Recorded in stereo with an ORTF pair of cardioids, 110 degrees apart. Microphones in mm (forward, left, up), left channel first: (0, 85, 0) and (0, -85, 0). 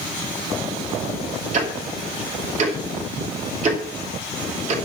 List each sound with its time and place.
1.5 s ticking: 40° right, 2.5 m